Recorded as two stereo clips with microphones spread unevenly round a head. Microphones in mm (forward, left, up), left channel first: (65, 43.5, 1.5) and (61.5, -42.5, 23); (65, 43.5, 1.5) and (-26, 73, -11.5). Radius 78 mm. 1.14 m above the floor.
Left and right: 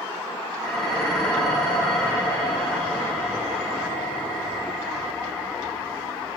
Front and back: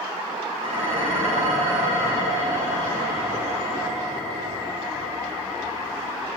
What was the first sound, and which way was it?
Dishes clattering, 170° left.